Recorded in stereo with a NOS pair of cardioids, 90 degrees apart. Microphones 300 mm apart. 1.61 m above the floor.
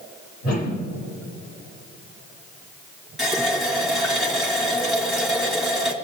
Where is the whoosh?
55° left, 2.5 m.